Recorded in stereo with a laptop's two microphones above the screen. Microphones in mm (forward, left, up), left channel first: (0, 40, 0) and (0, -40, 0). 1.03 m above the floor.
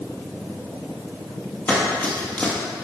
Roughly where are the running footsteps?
Centre.